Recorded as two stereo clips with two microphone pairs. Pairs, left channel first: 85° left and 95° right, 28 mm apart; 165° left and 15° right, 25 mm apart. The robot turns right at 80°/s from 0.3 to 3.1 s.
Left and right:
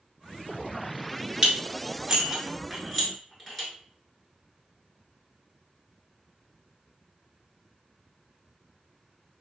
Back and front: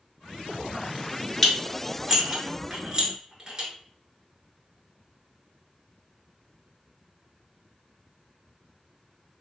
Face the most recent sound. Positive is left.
turn(degrees=20)